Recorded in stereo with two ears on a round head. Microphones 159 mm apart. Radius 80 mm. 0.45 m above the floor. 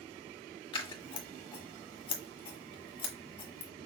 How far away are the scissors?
About 1.6 m.